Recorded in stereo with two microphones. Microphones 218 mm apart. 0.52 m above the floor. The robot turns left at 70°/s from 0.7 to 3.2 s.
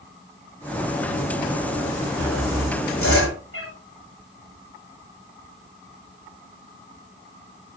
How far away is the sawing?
About 8 m.